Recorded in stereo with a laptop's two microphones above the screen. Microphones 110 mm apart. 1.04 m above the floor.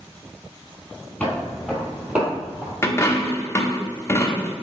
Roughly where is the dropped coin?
Left.